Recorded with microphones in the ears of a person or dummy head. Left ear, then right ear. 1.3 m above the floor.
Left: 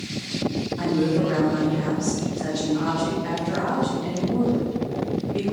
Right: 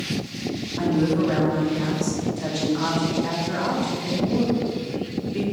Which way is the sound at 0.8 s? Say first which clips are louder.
Right 1 dB; 35° right (ahead or behind).